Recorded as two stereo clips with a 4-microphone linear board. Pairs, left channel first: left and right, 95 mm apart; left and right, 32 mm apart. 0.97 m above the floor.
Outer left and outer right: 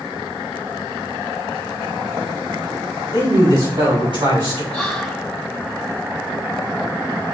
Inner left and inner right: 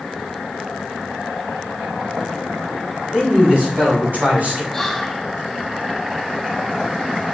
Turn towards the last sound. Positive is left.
turn(degrees=0)  # may be behind; listen again after turning